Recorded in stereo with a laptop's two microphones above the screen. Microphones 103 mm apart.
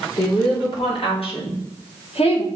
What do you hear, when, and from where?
0.2 s a woman speaking: 55° left (ahead or behind), 3.5 m; by 2.5 s 75° left (ahead or behind), 2.5 m